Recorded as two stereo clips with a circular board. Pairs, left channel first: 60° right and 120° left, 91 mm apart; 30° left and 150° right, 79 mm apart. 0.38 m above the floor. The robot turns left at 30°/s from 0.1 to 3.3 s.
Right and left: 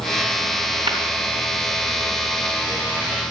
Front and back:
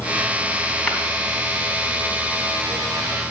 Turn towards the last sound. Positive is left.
turn(degrees=45)